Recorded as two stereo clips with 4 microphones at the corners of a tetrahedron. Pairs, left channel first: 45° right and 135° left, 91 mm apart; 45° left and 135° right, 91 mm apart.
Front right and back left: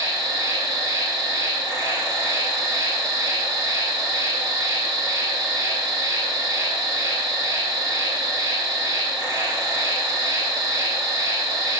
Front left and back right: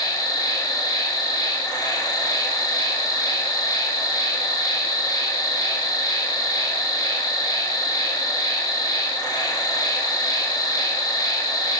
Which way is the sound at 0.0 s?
85° left.